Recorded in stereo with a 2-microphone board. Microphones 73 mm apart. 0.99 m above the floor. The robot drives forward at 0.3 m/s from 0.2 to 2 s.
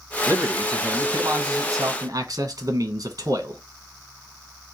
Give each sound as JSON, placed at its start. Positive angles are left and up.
{"t": 0.3, "sound": "a man speaking", "side_deg": -50, "distance_m": 1.1}